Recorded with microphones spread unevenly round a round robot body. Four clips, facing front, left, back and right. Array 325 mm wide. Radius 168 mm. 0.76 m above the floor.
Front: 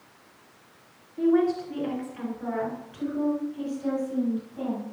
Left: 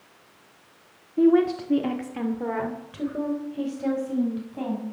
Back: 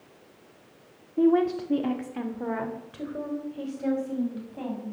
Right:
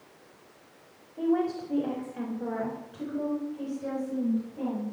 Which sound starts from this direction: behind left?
A woman speaking, at 1.2 s.